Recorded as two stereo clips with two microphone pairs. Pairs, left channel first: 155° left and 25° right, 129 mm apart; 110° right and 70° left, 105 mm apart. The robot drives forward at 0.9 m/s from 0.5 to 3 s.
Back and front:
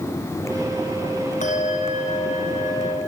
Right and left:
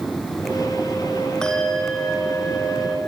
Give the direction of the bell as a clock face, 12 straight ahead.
6 o'clock.